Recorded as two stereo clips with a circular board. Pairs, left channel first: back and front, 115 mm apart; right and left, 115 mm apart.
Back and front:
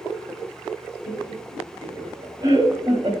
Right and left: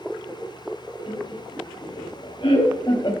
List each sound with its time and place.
1.1 s laughter: 65° right, 3.5 m; by 3.1 s 40° right, 2.5 m